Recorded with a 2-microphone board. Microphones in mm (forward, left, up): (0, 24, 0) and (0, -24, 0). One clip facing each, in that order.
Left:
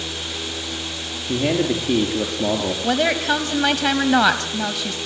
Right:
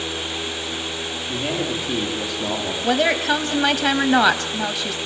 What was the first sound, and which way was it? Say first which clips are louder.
A man speaking: left 6 dB; 30° left (ahead or behind).